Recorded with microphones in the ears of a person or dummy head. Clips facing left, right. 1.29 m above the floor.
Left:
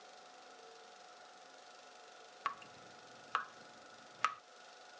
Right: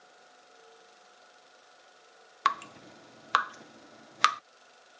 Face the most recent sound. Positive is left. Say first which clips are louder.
# right 14 dB
turn(degrees=-70)  # may be behind; listen again after turning